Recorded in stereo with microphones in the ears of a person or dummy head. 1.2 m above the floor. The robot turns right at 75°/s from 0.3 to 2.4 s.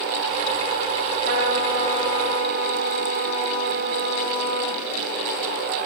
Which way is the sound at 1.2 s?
40° right.